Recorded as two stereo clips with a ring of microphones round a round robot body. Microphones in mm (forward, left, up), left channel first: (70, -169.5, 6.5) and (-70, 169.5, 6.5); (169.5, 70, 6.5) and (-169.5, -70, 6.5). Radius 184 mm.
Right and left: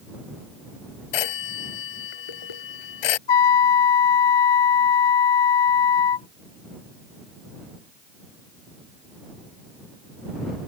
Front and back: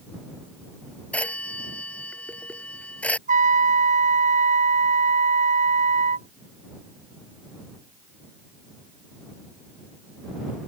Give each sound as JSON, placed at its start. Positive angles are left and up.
{"t": 1.1, "sound": "a phone ringing", "azimuth_deg": -65}
{"t": 3.3, "sound": "a trumpet", "azimuth_deg": -85}